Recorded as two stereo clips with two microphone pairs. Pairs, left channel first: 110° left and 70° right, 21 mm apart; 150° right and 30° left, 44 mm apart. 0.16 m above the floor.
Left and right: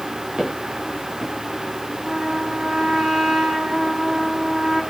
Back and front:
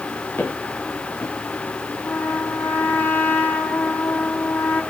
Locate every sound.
0.4 s footsteps: 115° right, 3.5 m
2.0 s a trumpet: 160° right, 5.5 m